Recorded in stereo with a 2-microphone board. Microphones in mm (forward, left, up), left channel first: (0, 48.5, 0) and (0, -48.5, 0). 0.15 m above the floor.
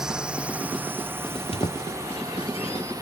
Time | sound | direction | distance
0.0 | a drone | 5° right (ahead or behind) | ?
1.3 | a squeak | 75° left (ahead or behind) | ?